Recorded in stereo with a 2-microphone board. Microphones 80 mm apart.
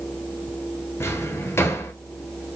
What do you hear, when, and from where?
1.0 s a drawer: 35° left (ahead or behind), 0.7 m